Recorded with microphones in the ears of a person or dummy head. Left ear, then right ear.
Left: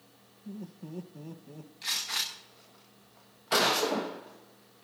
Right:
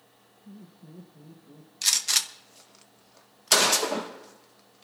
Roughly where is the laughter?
Left.